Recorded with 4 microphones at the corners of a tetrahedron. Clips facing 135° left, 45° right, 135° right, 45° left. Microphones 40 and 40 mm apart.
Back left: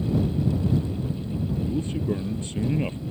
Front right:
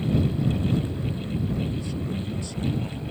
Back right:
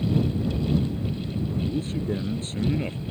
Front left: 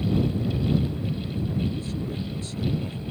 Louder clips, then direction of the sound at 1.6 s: Back left 4 dB, back right 3 dB; straight behind.